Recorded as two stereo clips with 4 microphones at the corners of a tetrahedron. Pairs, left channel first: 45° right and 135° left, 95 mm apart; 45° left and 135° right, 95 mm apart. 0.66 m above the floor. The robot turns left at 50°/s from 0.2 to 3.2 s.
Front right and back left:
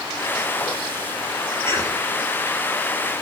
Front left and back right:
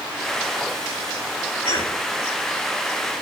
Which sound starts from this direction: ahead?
A cough, at 1.6 s.